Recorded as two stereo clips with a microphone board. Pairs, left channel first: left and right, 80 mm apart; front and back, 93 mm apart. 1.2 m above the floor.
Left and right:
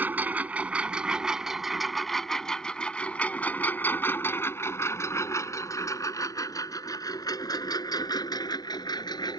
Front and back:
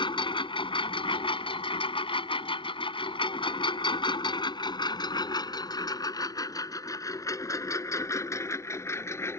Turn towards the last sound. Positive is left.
turn(degrees=60)